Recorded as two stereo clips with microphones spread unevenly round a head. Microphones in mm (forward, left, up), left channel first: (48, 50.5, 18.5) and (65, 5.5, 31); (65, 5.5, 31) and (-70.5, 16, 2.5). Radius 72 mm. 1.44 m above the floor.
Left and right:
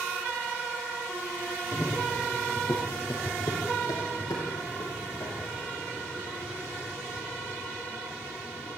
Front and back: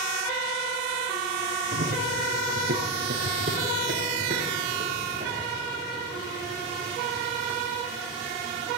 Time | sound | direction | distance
1.7 | running footsteps | 170° right | 3 m